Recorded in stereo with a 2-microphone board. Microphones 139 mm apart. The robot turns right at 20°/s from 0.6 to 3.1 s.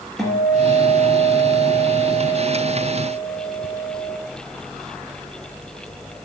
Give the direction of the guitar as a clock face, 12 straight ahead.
6 o'clock.